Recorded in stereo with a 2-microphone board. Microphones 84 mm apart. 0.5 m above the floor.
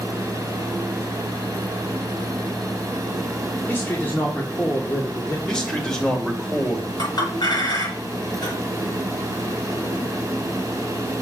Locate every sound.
3.7 s a man speaking: 25° left (ahead or behind), 1.4 m
5.5 s a man speaking: 10° left (ahead or behind), 2 m
7.0 s a clink: 60° left (ahead or behind), 5.5 m